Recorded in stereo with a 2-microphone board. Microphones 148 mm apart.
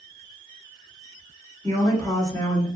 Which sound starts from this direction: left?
A woman speaking, at 1.6 s.